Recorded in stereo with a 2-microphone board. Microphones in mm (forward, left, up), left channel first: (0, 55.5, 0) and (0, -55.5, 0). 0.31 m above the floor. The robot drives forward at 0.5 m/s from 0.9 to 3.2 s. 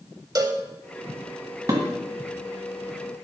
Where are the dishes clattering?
35° right (ahead or behind), 1.7 m.